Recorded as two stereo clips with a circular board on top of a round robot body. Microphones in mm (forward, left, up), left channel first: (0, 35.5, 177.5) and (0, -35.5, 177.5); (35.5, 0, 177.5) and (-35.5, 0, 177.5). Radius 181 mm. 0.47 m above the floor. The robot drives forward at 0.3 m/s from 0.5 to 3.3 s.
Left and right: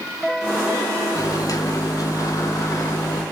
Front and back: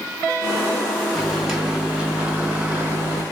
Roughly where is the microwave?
Left.